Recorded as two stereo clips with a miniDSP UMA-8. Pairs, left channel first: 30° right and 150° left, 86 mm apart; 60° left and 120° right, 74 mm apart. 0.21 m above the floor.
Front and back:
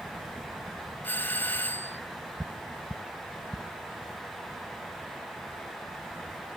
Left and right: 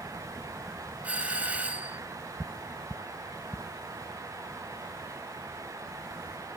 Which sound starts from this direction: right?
A doorbell, at 1.0 s.